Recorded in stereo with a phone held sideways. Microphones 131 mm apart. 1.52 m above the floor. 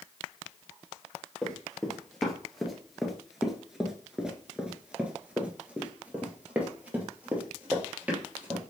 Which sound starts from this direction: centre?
Running footsteps, at 1.4 s.